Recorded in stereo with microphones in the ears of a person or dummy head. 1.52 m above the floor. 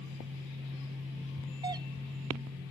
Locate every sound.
1.6 s a doorbell: 25° right (ahead or behind)